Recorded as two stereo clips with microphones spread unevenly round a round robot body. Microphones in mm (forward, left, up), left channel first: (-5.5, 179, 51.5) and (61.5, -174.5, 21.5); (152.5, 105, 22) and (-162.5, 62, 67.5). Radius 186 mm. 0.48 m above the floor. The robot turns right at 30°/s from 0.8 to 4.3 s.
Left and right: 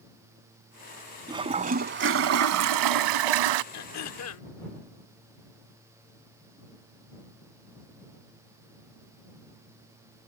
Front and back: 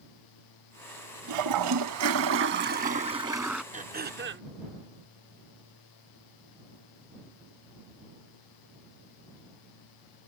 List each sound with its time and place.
1.3 s a toilet flushing: 160° right; by 3.6 s 90° right
3.7 s throat clearing: 120° left; by 4.5 s 140° left